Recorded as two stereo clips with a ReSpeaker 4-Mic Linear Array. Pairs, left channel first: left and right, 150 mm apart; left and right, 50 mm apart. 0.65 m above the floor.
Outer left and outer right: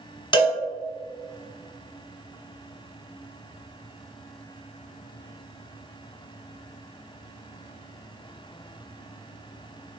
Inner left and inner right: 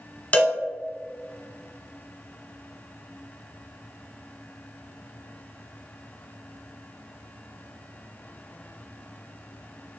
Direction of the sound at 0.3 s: 30° left (ahead or behind).